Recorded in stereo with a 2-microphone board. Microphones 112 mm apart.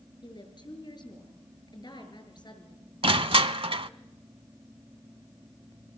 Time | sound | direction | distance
0.2 | a woman speaking | 45° left (ahead or behind) | 5.5 m
3.0 | crushing | 55° right (ahead or behind) | 0.7 m